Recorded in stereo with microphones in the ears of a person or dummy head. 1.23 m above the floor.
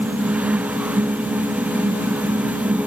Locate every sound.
Only background noise.